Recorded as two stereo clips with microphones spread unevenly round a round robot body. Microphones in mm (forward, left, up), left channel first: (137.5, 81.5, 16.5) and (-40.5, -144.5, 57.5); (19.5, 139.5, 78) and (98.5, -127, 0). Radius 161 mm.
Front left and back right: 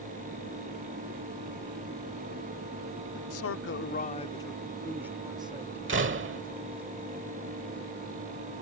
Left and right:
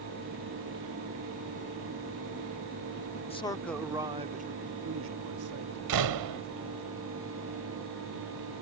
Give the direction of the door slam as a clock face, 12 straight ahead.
2 o'clock.